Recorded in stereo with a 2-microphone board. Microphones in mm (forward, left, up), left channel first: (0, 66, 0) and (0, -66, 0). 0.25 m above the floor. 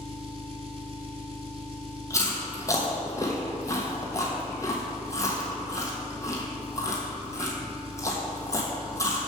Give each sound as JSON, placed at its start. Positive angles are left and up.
{"t": 0.0, "sound": "an engine running", "side_deg": -50, "distance_m": 0.8}
{"t": 2.1, "sound": "chewing", "side_deg": 25, "distance_m": 1.4}